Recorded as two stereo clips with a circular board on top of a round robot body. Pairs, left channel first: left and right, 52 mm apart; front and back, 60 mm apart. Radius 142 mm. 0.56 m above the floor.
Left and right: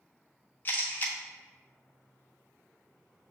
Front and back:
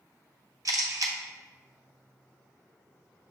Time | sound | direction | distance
0.7 | a camera shutter | 145° left | 0.5 m